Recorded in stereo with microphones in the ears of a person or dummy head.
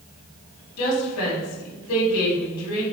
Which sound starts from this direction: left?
A woman speaking, at 0.8 s.